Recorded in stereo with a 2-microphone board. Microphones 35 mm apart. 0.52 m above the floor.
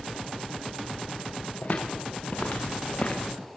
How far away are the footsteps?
About 4.5 m.